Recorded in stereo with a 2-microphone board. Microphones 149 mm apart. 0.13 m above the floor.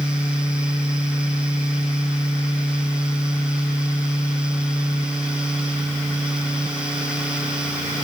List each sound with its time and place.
Only background noise.